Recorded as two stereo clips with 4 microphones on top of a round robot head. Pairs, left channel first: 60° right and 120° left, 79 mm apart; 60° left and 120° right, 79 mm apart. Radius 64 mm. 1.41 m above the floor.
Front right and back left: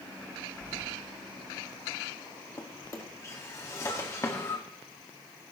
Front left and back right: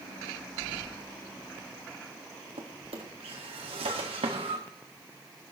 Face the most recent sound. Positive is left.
turn(degrees=-115)